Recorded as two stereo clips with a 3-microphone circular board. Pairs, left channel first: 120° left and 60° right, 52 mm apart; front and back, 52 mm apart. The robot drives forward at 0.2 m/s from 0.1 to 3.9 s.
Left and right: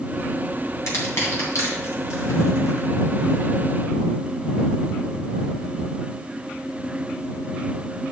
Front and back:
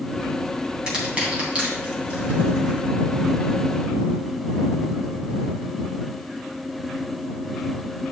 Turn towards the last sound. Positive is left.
turn(degrees=125)